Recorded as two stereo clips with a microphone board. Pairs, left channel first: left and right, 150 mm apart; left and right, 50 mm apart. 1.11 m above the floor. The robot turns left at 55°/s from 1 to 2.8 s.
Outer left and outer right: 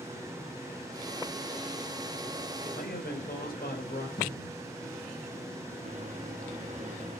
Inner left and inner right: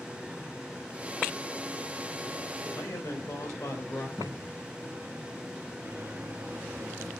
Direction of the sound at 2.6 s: 85° left.